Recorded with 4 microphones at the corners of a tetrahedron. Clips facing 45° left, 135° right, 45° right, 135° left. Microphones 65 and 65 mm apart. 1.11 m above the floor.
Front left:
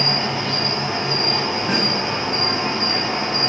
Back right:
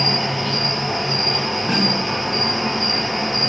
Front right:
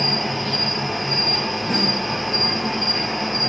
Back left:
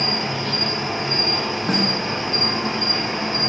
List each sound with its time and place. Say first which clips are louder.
0.0 s an insect: even, even; 100° left, 1.0 m
1.7 s a snare drum: back right 3 dB, back left 2 dB; 120° left, 0.6 m